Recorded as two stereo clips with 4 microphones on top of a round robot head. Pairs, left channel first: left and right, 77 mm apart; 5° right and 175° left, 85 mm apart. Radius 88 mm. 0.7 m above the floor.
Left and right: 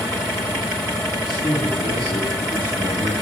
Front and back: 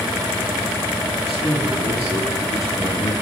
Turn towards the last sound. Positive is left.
turn(degrees=60)